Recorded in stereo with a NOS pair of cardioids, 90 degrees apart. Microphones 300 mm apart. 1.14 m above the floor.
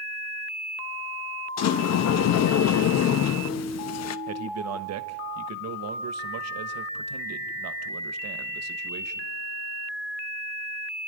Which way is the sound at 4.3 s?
60° right.